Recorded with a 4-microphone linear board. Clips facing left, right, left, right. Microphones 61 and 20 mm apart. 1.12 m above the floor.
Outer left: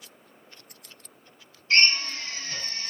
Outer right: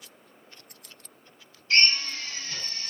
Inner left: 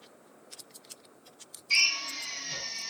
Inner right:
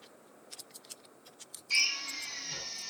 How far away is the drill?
About 3 m.